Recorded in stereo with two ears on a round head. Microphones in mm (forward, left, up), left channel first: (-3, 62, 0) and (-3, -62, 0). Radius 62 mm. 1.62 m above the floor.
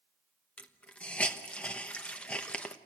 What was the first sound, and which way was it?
A hiss, 10° left (ahead or behind).